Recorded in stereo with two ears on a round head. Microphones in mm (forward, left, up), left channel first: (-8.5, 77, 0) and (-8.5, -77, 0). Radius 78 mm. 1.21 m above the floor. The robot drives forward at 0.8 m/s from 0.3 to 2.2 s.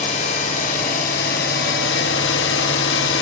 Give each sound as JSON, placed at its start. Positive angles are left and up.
{"t": 0.0, "sound": "an engine running", "side_deg": 45, "distance_m": 3.0}